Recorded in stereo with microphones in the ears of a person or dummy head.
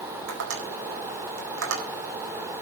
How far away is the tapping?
About 4 m.